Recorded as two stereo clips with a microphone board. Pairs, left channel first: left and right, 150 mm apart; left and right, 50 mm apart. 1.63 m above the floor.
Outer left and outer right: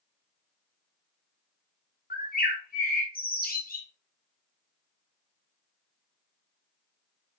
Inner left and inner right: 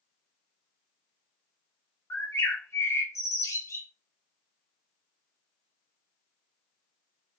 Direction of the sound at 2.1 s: 75° left (ahead or behind).